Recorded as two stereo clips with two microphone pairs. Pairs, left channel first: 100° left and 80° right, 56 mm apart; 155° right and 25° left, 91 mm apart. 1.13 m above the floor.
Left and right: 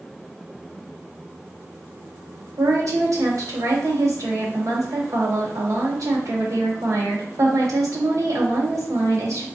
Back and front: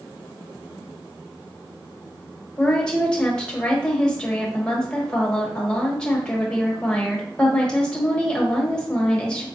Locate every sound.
2.6 s a woman speaking: 80° right, 1.1 m